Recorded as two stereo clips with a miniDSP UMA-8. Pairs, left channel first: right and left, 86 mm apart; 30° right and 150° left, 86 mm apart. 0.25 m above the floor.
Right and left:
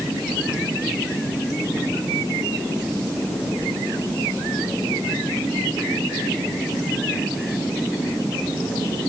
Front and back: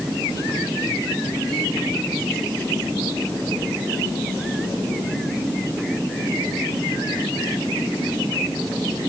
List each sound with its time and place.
Only background noise.